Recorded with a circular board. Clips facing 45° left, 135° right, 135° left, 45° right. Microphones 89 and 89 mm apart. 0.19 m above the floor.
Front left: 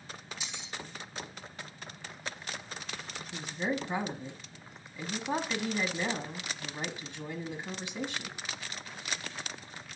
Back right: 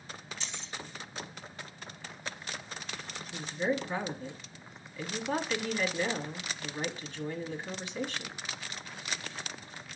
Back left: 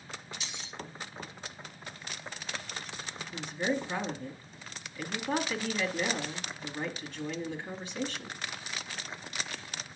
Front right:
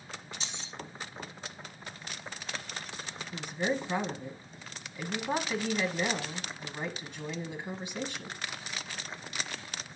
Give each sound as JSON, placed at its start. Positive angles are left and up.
{"t": 0.4, "sound": "keys jangling", "azimuth_deg": -25, "distance_m": 0.7}
{"t": 3.3, "sound": "a woman speaking", "azimuth_deg": 0, "distance_m": 1.1}